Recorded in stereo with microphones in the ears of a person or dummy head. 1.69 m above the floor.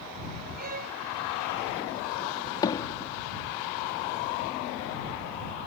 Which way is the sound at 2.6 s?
25° left (ahead or behind).